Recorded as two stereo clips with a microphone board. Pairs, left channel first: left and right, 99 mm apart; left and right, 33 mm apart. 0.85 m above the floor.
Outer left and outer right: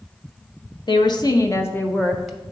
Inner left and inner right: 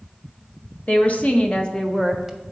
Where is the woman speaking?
50° left (ahead or behind), 0.9 m; by 2.4 s 5° right (ahead or behind), 0.9 m.